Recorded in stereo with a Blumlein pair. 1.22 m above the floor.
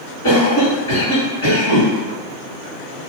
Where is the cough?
60° left, 1.7 m.